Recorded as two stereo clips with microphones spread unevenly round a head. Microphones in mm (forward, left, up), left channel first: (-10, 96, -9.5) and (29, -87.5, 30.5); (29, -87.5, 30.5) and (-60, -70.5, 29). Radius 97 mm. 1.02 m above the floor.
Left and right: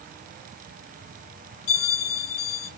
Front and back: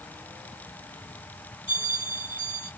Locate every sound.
1.7 s a bell: 90° left, 2 m